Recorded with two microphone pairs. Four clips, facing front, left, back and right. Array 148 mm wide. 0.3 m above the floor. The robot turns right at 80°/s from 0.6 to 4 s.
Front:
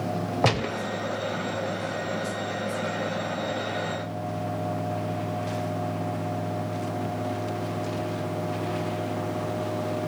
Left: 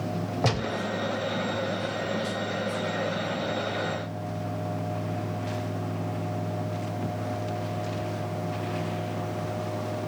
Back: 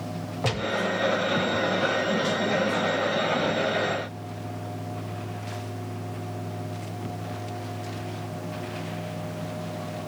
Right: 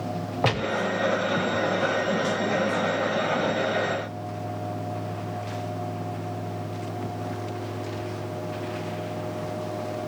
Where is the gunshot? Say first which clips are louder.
Right 4 dB, front 2 dB; 25° right, 0.5 m; by 0.8 s 10° right, 0.5 m.